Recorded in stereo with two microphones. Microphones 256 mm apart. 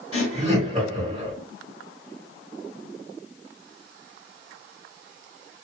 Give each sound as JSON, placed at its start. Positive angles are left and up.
{"t": 0.1, "sound": "laughter", "side_deg": -15, "distance_m": 1.4}